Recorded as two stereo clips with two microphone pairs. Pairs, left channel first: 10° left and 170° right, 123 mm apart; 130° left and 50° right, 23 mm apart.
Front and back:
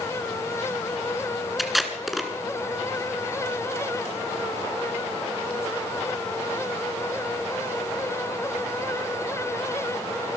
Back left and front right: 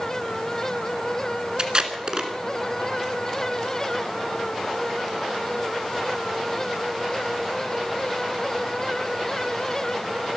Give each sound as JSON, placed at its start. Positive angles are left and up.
{"t": 1.6, "sound": "tape being pulled", "azimuth_deg": -80, "distance_m": 1.9}